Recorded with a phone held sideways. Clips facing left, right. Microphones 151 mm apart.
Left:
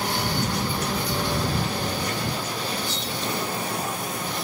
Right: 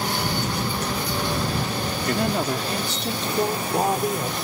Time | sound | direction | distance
2.1 | a woman speaking | 75° right (ahead or behind) | ?